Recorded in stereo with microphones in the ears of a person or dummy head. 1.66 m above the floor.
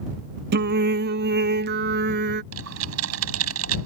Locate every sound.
0.5 s singing: 60° right (ahead or behind)
2.5 s typing on a keyboard: 90° right